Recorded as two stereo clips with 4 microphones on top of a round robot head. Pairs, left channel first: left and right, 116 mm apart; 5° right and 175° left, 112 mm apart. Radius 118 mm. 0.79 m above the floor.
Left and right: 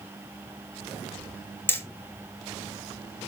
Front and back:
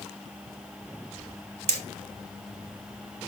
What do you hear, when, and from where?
1.7 s hammering: 160° left, 3 m